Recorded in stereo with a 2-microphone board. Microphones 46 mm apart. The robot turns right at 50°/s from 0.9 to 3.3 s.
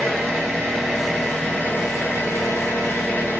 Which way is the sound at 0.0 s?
5° right.